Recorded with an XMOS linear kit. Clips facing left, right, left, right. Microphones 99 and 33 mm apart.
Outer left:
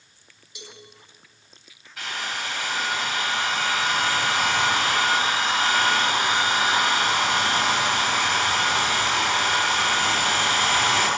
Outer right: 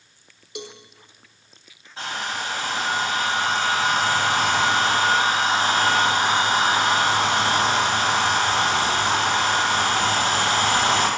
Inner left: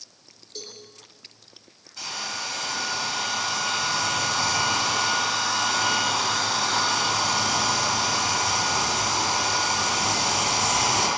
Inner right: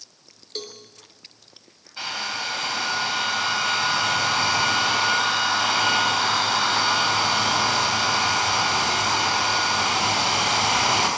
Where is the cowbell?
60° right (ahead or behind), 3.5 m.